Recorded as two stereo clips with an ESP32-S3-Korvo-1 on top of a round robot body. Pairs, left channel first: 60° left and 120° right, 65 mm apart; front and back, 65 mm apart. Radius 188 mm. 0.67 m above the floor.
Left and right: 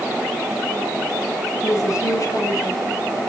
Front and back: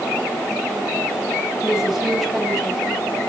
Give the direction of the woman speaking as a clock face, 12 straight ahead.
9 o'clock.